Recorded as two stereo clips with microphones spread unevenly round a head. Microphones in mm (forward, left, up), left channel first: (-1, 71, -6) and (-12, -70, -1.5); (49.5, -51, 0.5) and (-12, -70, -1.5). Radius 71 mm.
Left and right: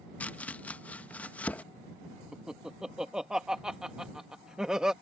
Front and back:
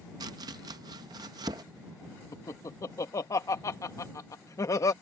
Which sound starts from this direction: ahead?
Laughter, at 2.3 s.